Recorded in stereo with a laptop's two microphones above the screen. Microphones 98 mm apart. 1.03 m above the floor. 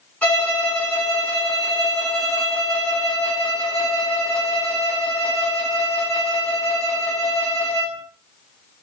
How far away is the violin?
About 0.8 m.